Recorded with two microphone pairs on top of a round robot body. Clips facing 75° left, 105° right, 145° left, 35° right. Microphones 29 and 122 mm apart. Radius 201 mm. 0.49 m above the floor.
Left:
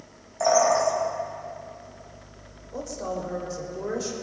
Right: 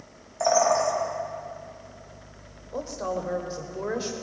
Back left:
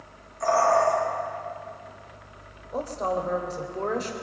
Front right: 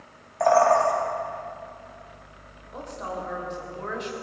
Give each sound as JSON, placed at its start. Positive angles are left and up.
{"t": 0.4, "sound": "a bird", "azimuth_deg": -20, "distance_m": 4.0}
{"t": 2.7, "sound": "a woman speaking", "azimuth_deg": -165, "distance_m": 3.0}